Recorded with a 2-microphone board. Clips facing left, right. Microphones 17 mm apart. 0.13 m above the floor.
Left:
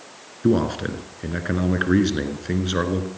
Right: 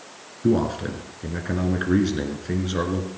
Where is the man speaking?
20° left (ahead or behind), 1.7 m.